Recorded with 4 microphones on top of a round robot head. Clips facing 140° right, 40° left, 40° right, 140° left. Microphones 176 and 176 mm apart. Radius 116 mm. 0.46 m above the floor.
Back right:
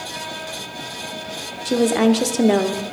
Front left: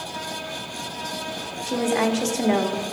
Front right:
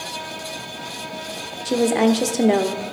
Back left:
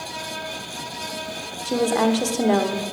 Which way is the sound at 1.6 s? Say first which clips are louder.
Back right 6 dB, front right 3 dB; 105° right.